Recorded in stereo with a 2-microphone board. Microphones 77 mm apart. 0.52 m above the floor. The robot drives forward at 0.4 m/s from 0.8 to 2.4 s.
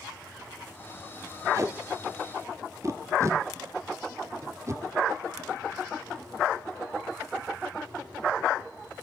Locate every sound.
1.5 s tape being pulled: 45° right (ahead or behind), 1.7 m; by 4.8 s 40° right (ahead or behind), 1.7 m